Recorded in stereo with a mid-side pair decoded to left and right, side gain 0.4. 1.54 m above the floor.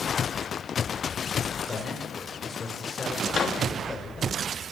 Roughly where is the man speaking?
Ahead left.